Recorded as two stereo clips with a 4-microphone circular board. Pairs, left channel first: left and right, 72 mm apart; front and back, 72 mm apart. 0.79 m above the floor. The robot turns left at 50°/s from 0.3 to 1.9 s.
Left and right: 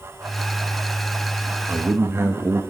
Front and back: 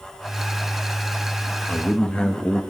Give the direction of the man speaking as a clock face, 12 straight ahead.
2 o'clock.